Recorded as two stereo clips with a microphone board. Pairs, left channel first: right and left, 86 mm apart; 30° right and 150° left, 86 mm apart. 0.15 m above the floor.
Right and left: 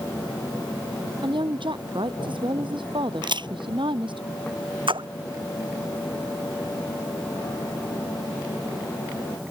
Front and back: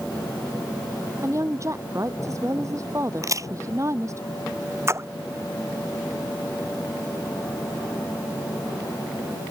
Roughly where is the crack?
Left.